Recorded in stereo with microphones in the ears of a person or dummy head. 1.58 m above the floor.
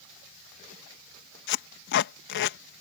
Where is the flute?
I don't hear a flute.